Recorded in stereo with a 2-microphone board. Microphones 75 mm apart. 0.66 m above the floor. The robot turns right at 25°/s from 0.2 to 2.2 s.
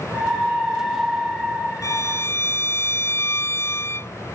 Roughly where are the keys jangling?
No keys jangling in this recording.